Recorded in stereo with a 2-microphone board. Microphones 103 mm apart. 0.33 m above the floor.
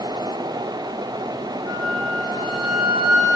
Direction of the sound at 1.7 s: 10° right (ahead or behind).